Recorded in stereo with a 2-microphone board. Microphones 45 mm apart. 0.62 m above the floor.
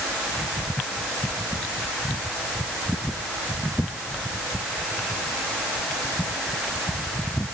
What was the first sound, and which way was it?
Only background noise.